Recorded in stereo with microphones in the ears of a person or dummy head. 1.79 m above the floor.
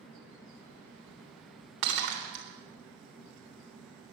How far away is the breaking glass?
About 3.5 m.